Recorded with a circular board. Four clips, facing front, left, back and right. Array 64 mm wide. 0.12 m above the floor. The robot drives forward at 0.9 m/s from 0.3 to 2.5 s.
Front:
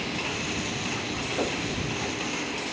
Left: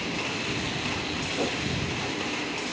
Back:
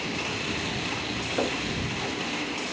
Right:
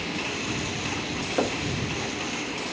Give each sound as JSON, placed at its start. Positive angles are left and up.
{"t": 1.4, "sound": "knocking", "azimuth_deg": -110, "distance_m": 2.5}